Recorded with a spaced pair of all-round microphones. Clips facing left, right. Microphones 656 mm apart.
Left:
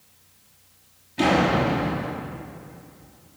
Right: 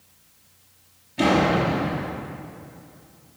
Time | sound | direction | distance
1.2 | a door slam | 5° right (ahead or behind) | 3 m